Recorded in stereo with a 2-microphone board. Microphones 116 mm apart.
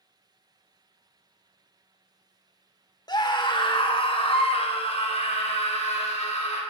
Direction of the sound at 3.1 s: 35° left (ahead or behind).